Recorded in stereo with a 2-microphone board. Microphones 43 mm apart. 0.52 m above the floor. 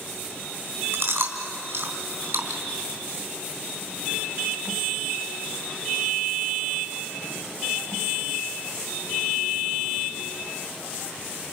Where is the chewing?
65° right (ahead or behind), 3.5 m.